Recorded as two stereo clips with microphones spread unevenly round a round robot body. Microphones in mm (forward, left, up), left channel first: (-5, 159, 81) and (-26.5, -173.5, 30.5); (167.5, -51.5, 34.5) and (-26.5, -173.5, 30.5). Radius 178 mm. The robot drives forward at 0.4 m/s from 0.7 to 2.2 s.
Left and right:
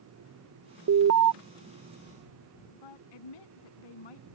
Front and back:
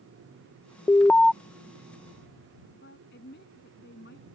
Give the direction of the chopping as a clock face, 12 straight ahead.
I don't hear chopping.